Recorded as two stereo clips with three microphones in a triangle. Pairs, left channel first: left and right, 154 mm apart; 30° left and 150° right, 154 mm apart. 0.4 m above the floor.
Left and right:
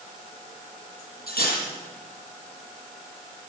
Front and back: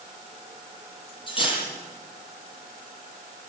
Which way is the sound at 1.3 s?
85° left.